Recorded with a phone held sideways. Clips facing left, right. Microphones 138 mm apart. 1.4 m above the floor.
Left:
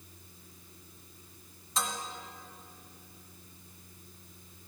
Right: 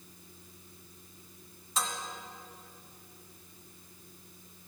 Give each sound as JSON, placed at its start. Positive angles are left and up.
{"t": 1.8, "sound": "dishes clattering", "side_deg": -5, "distance_m": 2.0}